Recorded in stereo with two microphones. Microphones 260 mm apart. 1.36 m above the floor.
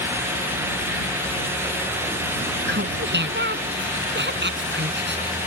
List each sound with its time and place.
2.7 s laughter: 45° right (ahead or behind)